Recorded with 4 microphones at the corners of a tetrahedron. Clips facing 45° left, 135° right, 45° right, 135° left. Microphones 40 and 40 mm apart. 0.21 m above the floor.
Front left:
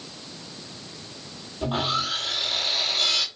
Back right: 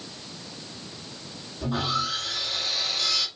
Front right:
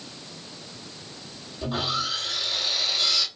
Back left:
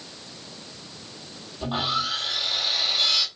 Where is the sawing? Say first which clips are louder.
Front left 1 dB, back left 2 dB; 75° left, 1.8 m.